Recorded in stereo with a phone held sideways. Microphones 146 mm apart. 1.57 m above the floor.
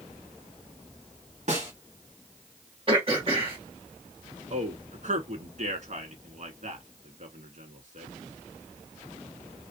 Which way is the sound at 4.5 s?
60° right (ahead or behind).